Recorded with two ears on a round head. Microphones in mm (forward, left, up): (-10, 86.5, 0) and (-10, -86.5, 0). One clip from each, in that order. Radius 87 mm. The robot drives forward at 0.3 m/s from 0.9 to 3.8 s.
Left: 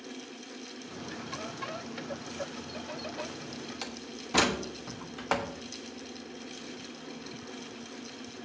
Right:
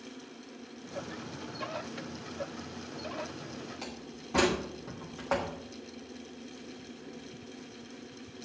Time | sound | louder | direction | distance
3.8 | a door slam | left 3 dB | 75° left (ahead or behind) | 1.2 m